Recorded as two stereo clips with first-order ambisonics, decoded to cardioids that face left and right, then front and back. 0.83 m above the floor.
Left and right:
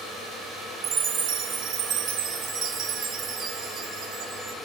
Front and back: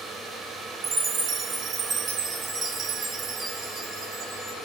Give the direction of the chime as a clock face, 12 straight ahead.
4 o'clock.